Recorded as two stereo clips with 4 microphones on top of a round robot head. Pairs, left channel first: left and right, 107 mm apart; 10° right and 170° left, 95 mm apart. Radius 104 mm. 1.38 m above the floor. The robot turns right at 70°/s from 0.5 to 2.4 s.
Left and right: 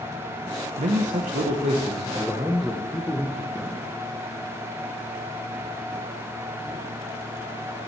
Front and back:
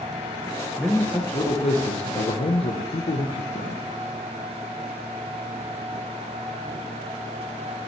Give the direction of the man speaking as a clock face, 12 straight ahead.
4 o'clock.